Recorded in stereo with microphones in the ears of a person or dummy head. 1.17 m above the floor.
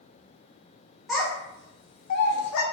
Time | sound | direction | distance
1.1 | a child speaking | 5° right (ahead or behind) | 0.8 m